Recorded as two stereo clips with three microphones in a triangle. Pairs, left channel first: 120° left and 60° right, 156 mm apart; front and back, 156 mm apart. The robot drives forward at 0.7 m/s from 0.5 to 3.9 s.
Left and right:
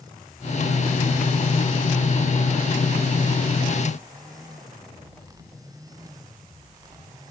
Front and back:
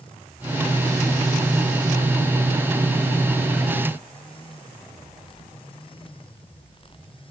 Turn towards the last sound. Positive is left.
No sound to turn to.